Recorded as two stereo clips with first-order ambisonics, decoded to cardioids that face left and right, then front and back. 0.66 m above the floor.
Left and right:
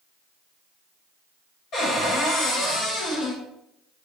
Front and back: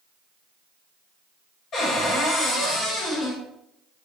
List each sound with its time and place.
1.7 s a cupboard door: 55° left, 1.2 m